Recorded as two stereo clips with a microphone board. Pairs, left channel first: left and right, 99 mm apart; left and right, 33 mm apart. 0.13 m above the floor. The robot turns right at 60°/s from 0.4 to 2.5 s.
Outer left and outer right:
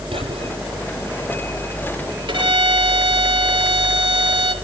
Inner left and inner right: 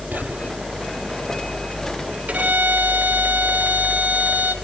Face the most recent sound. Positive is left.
turn(degrees=-55)  # may be behind; listen again after turning